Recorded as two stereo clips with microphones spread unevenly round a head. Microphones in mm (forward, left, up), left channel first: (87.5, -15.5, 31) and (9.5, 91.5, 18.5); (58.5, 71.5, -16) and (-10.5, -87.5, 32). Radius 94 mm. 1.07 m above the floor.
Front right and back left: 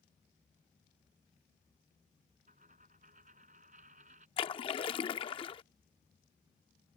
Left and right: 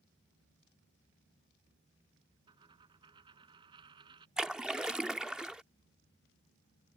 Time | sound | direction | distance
2.5 | a dropped coin | straight behind | ?
4.4 | a splash | 50° right | ?